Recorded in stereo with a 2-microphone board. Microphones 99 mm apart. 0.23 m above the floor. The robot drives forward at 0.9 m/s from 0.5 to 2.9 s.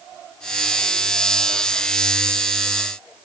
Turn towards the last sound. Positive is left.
No sound to turn to.